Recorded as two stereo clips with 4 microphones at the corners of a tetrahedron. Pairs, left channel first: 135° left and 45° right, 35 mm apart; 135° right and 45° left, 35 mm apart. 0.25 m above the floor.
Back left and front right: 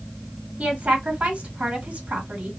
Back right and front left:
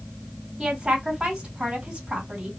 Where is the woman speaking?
15° right, 2.5 m.